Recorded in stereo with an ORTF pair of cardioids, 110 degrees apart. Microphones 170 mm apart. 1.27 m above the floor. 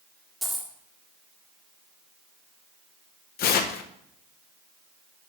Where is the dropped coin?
Straight ahead, 1.6 m.